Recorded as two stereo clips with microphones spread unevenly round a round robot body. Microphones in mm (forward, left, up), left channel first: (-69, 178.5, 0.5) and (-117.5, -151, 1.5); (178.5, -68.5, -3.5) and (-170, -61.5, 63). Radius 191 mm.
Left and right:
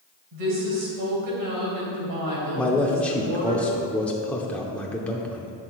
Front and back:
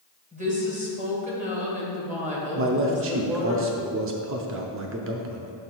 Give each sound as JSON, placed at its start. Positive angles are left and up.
{"t": 0.3, "sound": "a woman speaking", "azimuth_deg": -105, "distance_m": 3.0}
{"t": 2.5, "sound": "a man speaking", "azimuth_deg": 160, "distance_m": 0.7}